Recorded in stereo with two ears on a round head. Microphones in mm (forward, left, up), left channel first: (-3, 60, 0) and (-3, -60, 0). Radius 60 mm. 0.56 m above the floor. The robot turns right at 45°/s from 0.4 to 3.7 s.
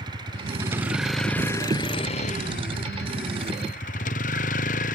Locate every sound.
0.0 s a vehicle: 30° right; by 5.0 s 115° left